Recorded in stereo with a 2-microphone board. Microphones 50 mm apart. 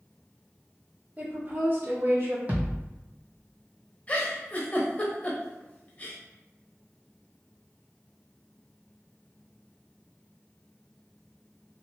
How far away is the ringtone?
No ringtone in this recording.